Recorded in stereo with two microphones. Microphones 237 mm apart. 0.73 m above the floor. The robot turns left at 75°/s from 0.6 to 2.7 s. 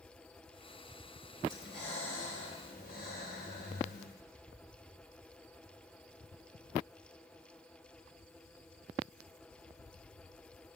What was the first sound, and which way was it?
Breathing, 140° left.